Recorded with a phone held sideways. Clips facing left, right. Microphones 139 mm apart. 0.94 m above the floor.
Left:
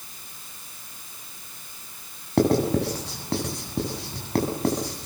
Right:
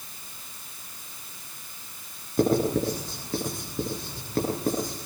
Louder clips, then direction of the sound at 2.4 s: Left 2 dB; 85° left.